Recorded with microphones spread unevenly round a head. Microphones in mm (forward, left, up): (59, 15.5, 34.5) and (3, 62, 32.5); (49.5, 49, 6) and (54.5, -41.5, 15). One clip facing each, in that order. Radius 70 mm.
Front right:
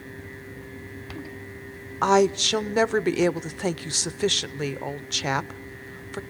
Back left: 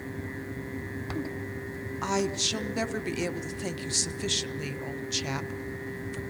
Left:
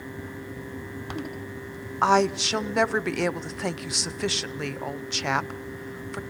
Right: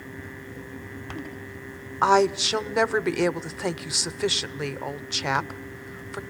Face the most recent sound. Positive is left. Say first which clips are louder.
# front right 10 dB, right 1 dB
turn(degrees=0)